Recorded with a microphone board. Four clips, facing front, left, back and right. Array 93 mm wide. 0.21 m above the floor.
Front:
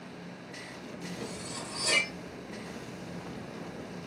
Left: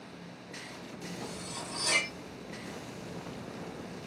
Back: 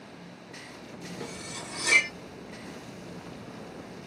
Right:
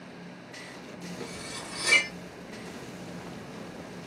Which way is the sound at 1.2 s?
135° right.